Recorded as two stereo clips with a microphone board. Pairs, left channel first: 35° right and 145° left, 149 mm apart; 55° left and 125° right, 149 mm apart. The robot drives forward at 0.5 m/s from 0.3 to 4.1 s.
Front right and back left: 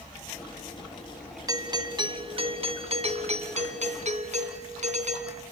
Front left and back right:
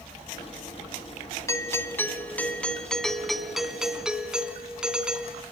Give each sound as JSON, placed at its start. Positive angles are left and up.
{"t": 1.5, "sound": "a doorbell", "azimuth_deg": 110, "distance_m": 1.6}